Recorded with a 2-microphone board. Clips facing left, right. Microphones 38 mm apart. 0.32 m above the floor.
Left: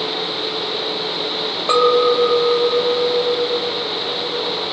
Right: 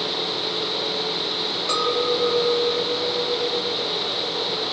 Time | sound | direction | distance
1.7 | a clink | 40° left (ahead or behind) | 1.0 m